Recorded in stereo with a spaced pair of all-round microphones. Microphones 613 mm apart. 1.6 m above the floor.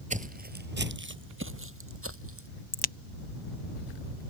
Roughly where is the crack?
Left.